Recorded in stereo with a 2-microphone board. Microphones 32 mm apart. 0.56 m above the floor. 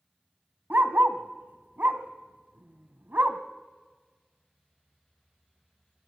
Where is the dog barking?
85° right, 1.4 m.